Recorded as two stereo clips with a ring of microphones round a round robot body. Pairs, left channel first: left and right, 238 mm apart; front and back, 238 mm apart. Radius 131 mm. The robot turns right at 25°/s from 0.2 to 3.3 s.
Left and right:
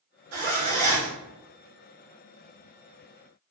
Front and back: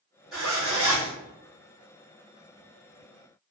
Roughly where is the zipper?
Right.